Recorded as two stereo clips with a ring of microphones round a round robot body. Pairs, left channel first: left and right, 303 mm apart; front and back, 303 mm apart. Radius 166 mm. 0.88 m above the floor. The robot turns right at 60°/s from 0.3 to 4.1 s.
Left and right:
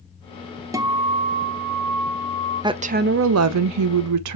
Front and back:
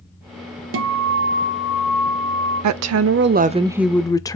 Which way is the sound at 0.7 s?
165° right.